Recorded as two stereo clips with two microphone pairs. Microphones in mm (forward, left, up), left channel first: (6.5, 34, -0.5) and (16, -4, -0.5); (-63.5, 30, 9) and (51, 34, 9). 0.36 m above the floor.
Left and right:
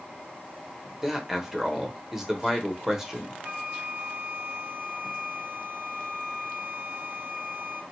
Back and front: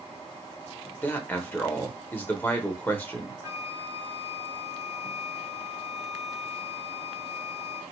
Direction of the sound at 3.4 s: 55° right.